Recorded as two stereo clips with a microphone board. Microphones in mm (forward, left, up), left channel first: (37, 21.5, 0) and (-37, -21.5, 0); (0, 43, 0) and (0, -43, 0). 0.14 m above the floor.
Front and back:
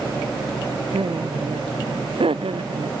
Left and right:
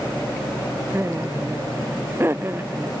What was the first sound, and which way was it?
Laughter, 150° right.